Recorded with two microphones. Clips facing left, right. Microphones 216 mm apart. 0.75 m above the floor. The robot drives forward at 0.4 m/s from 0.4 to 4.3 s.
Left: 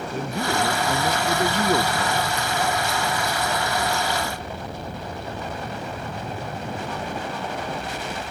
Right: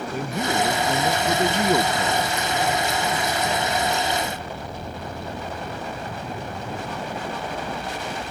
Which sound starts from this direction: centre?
A man speaking, at 0.1 s.